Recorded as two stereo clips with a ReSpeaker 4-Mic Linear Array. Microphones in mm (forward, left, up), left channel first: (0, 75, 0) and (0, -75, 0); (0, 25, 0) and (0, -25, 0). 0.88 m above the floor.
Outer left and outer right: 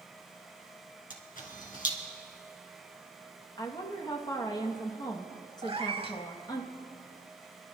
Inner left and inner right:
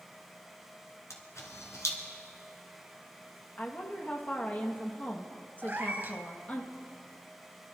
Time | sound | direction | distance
1.1 | a camera shutter | 70° left (ahead or behind) | 2.0 m
3.6 | a woman speaking | 25° left (ahead or behind) | 1.3 m
5.6 | a cat meowing | 40° right (ahead or behind) | 0.9 m